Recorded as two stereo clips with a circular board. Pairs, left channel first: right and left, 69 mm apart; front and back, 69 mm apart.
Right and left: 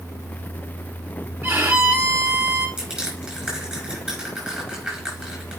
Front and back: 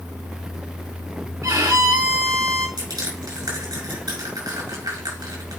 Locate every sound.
1.4 s a violin: 150° left, 1.6 m
2.8 s crushing: 170° left, 5 m